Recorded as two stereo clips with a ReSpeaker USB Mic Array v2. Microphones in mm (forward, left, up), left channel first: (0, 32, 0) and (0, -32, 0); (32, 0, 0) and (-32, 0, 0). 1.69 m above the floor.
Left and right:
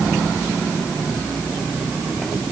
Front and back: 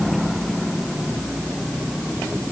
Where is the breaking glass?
I don't hear breaking glass.